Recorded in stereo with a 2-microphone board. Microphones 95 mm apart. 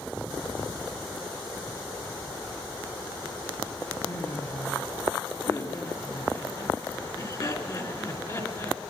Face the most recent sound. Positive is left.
turn(degrees=35)  # may be behind; listen again after turning